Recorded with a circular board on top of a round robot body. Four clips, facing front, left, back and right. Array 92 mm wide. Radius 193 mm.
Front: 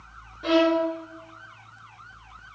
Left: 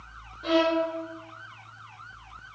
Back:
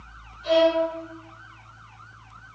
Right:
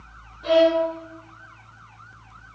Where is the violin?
5° left, 5.5 m.